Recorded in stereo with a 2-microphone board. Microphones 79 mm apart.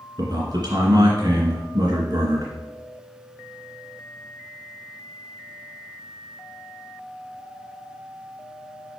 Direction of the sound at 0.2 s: 55° right (ahead or behind).